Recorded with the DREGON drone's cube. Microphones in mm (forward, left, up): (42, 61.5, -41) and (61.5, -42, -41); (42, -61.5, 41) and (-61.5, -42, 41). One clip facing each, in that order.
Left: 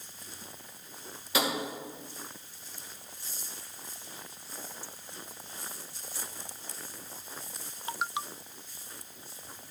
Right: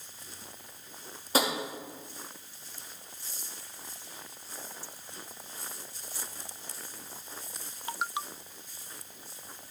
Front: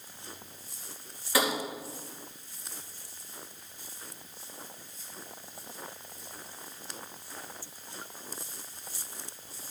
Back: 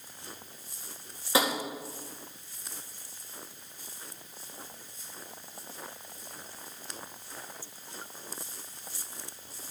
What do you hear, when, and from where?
1.3 s tapping: 125° right, 2 m